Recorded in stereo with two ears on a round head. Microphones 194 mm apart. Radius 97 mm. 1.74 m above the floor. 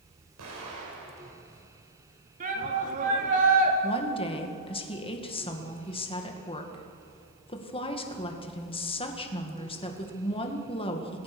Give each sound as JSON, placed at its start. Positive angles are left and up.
{"t": 0.4, "sound": "an explosion", "side_deg": -80, "distance_m": 6.5}
{"t": 2.4, "sound": "a shout", "side_deg": -40, "distance_m": 4.0}
{"t": 3.8, "sound": "a woman speaking", "side_deg": 25, "distance_m": 2.0}